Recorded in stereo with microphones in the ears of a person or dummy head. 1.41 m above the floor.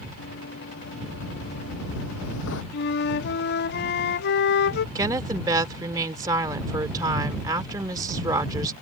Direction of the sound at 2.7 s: 55° left (ahead or behind).